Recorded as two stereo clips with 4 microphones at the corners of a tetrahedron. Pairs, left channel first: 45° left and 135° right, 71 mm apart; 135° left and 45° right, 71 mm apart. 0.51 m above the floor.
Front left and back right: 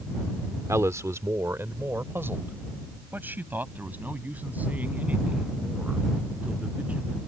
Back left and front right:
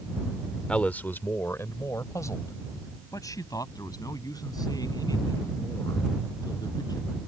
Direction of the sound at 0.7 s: 155° right.